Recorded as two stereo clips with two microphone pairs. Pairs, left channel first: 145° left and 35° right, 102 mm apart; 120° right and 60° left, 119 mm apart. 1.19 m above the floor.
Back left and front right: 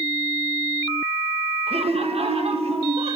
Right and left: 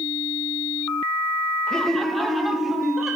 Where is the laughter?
35° right, 1.5 m; by 3.2 s 25° right, 2.5 m.